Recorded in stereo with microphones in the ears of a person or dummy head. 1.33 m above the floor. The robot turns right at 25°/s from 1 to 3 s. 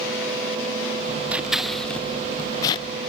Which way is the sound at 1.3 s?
5° right (ahead or behind).